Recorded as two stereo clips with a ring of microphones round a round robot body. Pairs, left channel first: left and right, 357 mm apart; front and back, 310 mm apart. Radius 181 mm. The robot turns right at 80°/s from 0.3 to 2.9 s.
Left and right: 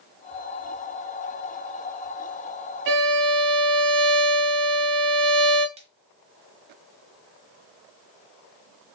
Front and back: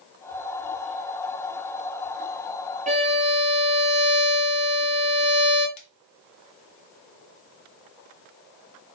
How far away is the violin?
About 1.0 m.